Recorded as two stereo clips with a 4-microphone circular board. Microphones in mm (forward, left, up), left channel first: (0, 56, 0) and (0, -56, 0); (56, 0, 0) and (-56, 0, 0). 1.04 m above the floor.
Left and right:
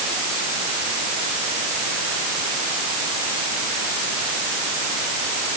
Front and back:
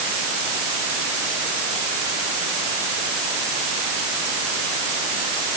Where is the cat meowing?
I don't hear a cat meowing.